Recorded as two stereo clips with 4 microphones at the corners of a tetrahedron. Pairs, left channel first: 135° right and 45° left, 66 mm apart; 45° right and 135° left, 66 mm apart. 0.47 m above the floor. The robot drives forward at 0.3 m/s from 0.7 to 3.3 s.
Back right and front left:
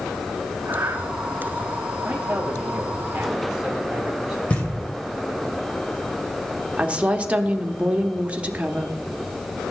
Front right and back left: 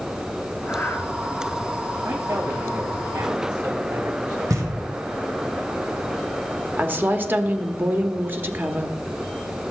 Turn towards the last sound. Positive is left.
turn(degrees=100)